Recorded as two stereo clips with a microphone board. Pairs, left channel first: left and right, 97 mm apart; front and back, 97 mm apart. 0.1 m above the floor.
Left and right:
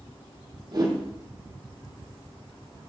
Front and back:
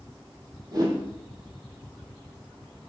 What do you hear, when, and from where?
0.7 s a whoosh: 135° right, 3.5 m